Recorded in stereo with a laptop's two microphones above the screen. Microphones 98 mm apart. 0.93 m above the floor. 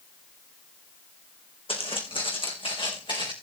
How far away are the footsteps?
About 3.5 m.